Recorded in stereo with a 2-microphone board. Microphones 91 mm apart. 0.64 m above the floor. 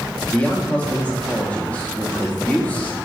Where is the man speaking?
15° left (ahead or behind), 0.6 m.